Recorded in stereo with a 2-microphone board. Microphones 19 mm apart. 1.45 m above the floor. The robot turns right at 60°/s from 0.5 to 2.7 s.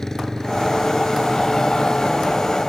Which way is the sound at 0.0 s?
30° left.